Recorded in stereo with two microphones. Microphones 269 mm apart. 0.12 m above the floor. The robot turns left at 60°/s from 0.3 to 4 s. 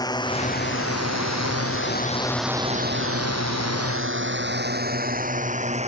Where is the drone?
15° left (ahead or behind); by 5.9 s 25° right (ahead or behind).